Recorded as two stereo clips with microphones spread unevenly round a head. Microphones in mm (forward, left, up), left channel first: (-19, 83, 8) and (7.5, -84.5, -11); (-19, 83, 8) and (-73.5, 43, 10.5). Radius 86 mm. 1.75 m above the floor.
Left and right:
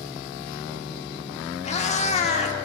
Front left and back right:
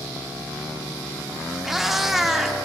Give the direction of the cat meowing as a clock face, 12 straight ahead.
8 o'clock.